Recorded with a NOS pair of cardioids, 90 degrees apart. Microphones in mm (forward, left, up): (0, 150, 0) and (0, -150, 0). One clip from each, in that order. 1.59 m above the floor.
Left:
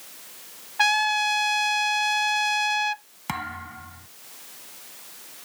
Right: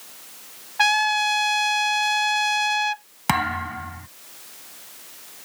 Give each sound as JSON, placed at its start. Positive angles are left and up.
{"t": 0.8, "sound": "a trumpet", "azimuth_deg": -5}
{"t": 3.3, "sound": "a thud", "azimuth_deg": -60}